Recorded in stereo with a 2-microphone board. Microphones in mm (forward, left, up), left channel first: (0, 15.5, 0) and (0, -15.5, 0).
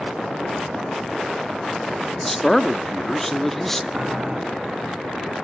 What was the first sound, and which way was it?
A man speaking, 10° left (ahead or behind).